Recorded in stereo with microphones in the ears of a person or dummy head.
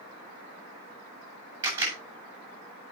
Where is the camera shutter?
10° right (ahead or behind), 7.5 m.